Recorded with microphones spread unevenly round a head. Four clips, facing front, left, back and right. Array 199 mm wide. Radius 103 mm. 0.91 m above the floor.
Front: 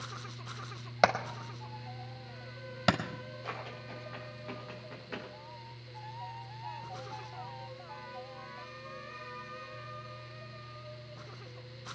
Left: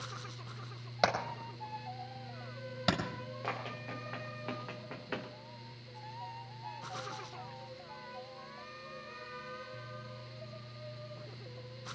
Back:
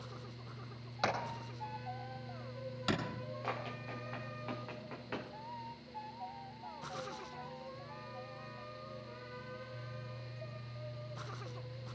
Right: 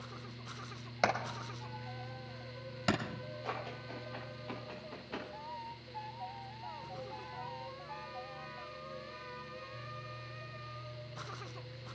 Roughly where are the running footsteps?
Left.